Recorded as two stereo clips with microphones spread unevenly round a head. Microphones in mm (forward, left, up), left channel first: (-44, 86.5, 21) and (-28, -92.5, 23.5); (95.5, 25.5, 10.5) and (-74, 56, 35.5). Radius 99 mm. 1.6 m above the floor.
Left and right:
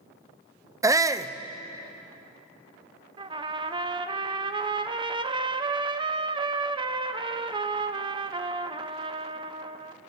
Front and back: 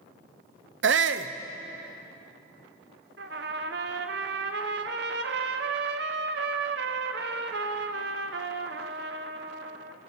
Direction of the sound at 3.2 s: 150° right.